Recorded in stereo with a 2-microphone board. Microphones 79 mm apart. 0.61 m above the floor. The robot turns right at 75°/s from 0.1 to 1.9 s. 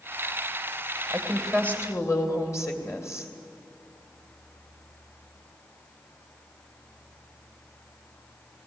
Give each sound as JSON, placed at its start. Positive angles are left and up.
{"t": 1.1, "sound": "a woman speaking", "azimuth_deg": -25, "distance_m": 2.5}